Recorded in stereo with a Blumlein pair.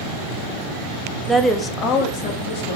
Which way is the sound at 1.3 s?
Straight ahead.